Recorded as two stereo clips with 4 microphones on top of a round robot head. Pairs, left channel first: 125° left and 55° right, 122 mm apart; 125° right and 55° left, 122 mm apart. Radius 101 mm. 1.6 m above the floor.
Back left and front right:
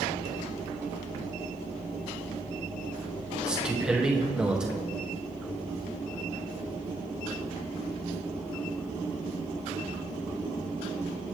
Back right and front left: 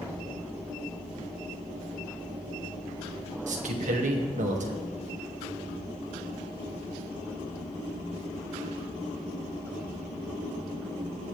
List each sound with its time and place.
3.5 s a man speaking: 30° left, 2.5 m